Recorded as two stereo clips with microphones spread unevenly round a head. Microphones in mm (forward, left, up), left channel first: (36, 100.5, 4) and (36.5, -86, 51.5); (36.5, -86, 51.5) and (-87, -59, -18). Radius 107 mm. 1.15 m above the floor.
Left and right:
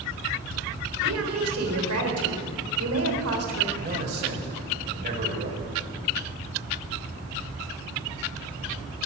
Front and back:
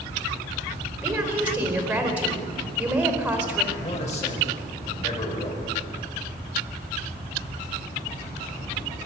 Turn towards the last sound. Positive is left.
turn(degrees=-55)